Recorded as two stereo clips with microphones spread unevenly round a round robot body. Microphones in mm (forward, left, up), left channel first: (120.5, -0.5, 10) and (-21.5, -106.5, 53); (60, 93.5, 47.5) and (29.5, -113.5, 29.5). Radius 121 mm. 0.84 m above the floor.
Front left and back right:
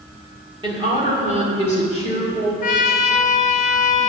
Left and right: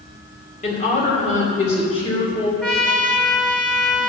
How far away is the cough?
I don't hear a cough.